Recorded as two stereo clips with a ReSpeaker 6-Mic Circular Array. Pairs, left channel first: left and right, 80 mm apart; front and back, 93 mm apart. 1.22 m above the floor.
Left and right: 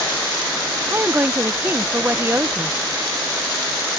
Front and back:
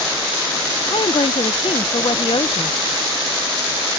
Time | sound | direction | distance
0.9 | a woman speaking | 25° right | ?